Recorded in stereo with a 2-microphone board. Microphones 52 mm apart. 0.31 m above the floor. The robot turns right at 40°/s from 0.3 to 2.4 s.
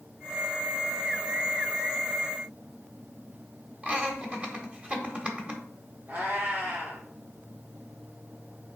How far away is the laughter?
About 1.4 m.